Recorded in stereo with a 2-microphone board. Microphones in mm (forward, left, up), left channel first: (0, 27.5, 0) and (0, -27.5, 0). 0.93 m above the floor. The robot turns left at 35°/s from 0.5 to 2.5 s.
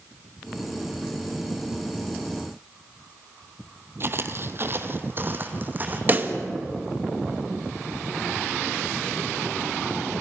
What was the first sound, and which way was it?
Footsteps, 45° right (ahead or behind).